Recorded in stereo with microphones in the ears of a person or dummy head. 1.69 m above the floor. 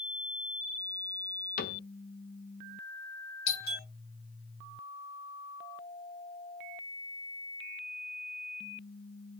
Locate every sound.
1.6 s a cupboard door: 50° left (ahead or behind), 0.6 m
3.5 s a doorbell: 70° left (ahead or behind), 1.2 m